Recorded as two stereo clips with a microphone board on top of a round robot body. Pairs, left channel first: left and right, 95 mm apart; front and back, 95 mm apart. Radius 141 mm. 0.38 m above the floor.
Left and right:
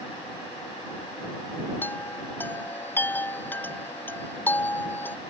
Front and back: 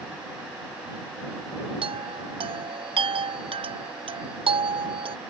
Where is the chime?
160° left.